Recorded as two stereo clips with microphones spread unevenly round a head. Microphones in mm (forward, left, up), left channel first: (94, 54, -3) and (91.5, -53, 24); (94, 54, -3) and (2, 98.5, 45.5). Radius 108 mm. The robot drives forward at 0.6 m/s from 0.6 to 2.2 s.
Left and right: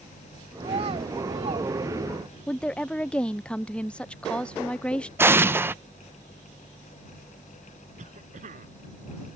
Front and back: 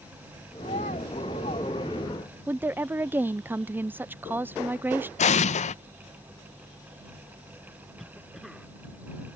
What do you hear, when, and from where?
0.6 s a child speaking: 80° right; by 1.7 s 90° right
2.5 s a woman speaking: 50° left
5.2 s an explosion: 20° right
8.0 s a cough: 120° right